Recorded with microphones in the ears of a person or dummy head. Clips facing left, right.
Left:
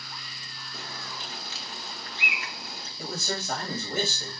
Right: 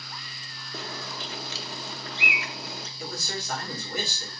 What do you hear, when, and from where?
0.7 s a bird: 60° right (ahead or behind), 0.6 m
3.0 s a man speaking: 40° left (ahead or behind), 2.5 m